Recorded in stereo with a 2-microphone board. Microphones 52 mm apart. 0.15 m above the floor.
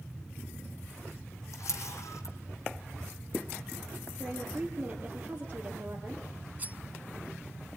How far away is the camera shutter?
About 3 m.